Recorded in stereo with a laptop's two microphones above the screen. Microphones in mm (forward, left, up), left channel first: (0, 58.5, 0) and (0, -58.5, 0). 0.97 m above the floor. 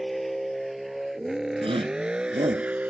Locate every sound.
0.0 s a vehicle: centre (ahead or behind); by 2.9 s 15° right (ahead or behind)
1.6 s a shout: 50° right (ahead or behind)